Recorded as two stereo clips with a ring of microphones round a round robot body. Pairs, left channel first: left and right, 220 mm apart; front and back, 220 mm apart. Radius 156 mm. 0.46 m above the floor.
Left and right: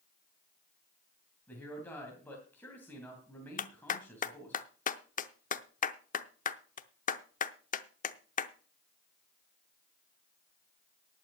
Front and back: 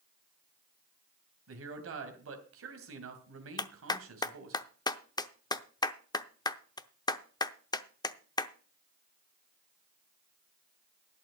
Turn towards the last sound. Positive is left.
turn(degrees=65)